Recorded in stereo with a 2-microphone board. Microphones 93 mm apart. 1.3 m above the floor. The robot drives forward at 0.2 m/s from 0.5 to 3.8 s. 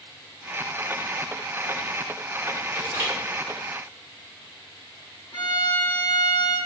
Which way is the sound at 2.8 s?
60° left (ahead or behind).